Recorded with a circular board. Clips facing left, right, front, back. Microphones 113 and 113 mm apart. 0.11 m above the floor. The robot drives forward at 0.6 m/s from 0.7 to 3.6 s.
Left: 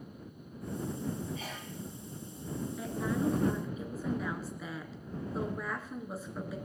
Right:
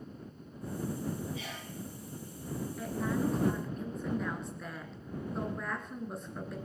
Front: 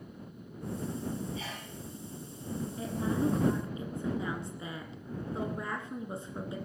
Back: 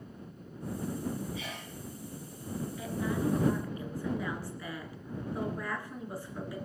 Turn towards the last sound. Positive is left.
turn(degrees=10)